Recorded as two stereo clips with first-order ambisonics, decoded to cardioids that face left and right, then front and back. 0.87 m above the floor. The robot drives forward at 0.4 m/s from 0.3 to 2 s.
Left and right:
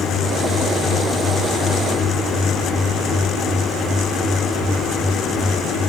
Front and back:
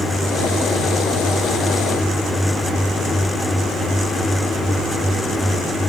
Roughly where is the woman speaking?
I don't hear a woman speaking.